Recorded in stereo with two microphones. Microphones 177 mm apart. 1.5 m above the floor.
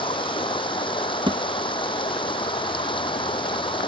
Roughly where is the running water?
Left.